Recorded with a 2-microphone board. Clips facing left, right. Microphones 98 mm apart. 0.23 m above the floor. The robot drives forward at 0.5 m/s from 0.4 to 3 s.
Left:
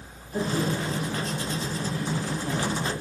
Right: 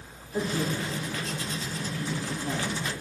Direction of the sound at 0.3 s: 15° left (ahead or behind).